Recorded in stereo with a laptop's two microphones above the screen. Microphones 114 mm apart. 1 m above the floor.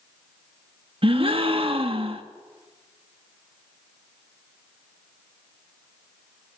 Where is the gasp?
50° right (ahead or behind), 1.6 m.